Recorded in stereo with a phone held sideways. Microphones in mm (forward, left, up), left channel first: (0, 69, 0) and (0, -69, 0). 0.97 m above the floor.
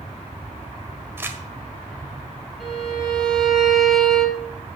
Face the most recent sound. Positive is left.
turn(degrees=0)  # may be behind; listen again after turning